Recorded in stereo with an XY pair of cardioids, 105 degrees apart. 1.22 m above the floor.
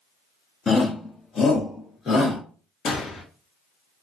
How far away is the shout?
About 0.6 m.